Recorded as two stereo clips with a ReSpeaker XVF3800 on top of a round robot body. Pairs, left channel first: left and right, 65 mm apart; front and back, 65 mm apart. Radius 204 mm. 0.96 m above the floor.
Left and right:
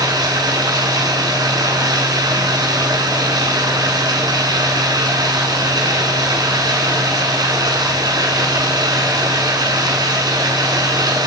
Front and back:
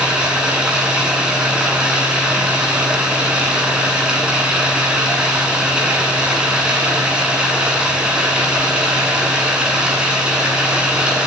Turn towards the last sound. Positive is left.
turn(degrees=-105)